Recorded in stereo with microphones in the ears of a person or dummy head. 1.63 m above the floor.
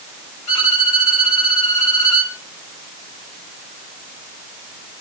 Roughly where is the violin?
Left.